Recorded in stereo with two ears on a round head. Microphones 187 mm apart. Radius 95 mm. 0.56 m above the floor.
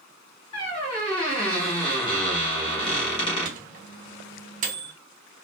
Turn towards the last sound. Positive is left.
turn(degrees=-40)  # may be behind; listen again after turning